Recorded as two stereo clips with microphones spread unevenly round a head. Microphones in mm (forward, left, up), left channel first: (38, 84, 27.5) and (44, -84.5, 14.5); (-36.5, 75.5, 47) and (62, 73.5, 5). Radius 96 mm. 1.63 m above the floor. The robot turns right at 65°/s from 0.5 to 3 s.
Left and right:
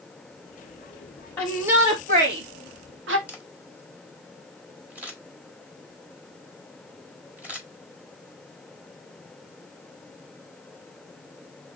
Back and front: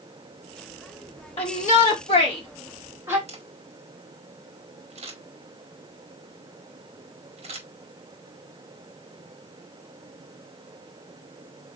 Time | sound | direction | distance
1.4 | a shout | 170° left | 2.5 m
3.3 | a camera shutter | 5° right | 4.5 m